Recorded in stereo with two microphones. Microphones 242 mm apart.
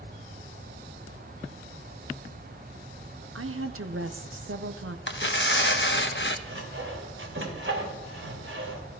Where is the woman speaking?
65° right (ahead or behind), 1.1 m.